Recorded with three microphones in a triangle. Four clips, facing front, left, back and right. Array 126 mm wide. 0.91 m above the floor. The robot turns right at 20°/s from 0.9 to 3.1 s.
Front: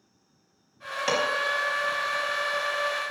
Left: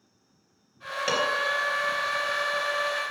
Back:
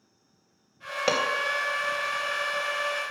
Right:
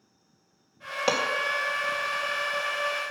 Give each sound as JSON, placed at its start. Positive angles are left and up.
{"t": 1.1, "sound": "dishes clattering", "azimuth_deg": -150, "distance_m": 3.5}